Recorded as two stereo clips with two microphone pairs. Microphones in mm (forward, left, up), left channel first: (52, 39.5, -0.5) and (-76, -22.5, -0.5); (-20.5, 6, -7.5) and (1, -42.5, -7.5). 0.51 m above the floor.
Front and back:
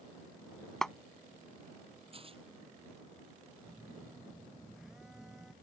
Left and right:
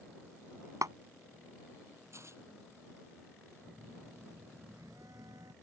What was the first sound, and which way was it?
A clap, 60° right.